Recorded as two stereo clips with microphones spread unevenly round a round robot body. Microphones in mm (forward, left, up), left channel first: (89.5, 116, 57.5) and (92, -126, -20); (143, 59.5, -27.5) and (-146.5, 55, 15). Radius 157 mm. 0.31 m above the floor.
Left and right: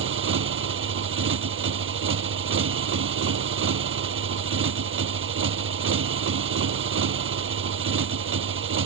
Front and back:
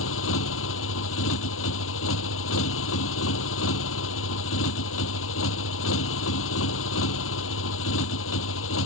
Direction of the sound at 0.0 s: 50° right.